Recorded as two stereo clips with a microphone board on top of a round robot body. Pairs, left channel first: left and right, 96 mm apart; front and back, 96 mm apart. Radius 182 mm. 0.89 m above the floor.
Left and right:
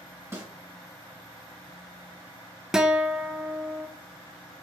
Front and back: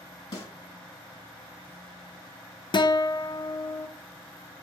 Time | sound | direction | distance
0.3 | a snare drum | 30° right | 3 m
2.7 | a guitar | 5° right | 0.7 m